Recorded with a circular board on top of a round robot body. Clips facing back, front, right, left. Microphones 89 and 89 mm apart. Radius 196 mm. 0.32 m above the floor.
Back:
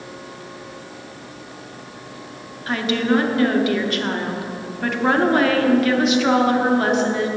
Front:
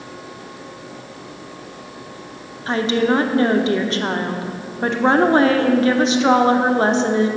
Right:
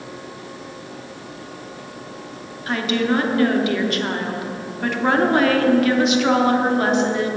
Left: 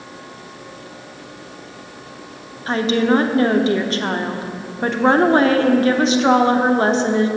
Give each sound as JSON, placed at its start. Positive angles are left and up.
{"t": 2.7, "sound": "a woman speaking", "azimuth_deg": 50, "distance_m": 1.2}